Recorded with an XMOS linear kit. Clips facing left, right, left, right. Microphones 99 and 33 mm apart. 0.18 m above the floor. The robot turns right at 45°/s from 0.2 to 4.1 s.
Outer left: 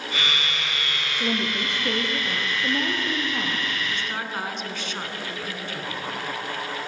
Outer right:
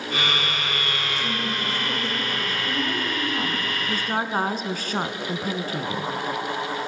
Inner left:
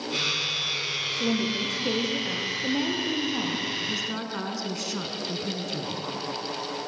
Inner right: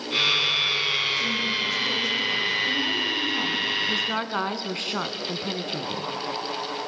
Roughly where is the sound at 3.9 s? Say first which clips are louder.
Outer right 5 dB, inner right 5 dB; right.